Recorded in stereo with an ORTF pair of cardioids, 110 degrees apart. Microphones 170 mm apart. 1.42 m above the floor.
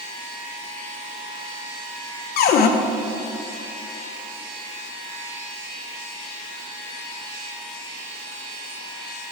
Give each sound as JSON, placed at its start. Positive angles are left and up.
{"t": 2.4, "sound": "a cupboard door", "azimuth_deg": 70, "distance_m": 0.8}